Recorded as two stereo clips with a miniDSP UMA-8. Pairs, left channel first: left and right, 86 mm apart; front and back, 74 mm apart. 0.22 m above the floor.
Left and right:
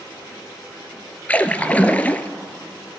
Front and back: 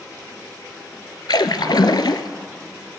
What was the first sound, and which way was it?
A splash, 20° left.